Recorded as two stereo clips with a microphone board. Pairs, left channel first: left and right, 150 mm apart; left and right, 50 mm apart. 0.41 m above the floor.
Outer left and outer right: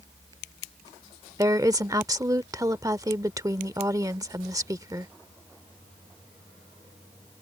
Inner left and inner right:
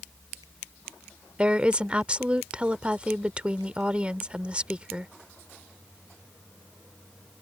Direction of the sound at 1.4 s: 25° right (ahead or behind).